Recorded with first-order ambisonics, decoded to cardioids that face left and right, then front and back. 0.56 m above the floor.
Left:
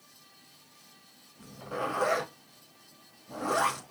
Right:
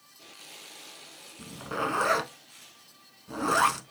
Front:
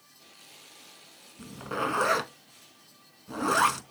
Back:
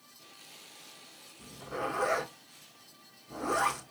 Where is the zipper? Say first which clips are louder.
Right 3 dB, front 5 dB; 40° right, 0.8 m.